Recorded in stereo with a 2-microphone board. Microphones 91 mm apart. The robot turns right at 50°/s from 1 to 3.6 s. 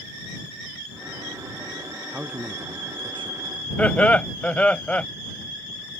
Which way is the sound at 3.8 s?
15° left (ahead or behind).